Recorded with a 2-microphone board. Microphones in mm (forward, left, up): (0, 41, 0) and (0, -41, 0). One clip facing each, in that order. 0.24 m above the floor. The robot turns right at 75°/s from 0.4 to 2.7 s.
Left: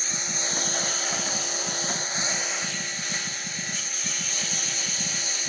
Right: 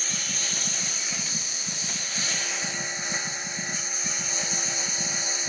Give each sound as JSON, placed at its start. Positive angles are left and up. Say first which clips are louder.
{"t": 0.0, "sound": "a lawn mower", "louder": "left 2 dB", "azimuth_deg": 25}